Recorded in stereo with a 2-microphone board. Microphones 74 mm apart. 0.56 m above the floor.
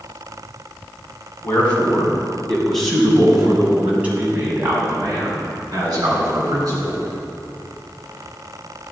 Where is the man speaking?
25° left (ahead or behind), 4.5 m; by 7.0 s 60° right (ahead or behind), 5.5 m.